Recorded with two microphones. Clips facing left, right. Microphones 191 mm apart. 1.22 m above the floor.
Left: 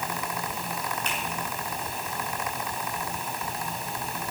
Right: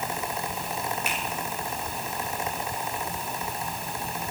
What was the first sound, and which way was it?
A finger snap, 10° right (ahead or behind).